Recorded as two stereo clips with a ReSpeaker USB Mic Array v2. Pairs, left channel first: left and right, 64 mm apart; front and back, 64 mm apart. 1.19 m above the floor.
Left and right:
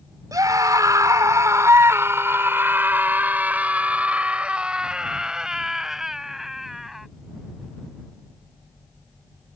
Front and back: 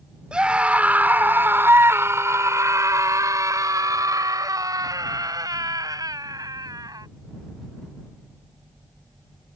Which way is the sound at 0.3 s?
105° right.